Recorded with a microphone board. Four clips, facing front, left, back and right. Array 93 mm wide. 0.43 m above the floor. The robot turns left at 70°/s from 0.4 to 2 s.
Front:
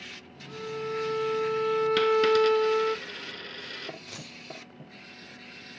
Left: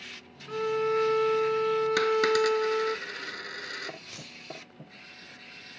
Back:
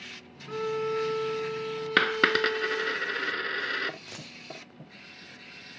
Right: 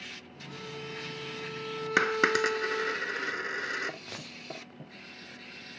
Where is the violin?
130° left, 0.6 m; by 3.0 s 25° left, 0.6 m.